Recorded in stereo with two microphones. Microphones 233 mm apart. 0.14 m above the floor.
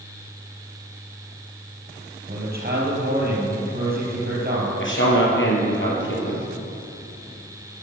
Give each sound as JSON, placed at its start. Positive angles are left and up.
{"t": 2.3, "sound": "a man speaking", "side_deg": -40, "distance_m": 3.5}
{"t": 4.8, "sound": "a man speaking", "side_deg": 55, "distance_m": 3.5}